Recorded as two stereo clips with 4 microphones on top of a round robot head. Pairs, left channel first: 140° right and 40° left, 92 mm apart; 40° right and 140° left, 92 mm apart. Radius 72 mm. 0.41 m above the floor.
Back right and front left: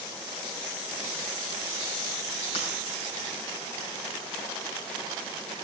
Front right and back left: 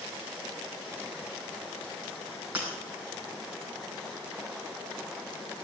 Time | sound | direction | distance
2.5 | breaking glass | 145° right | 6 m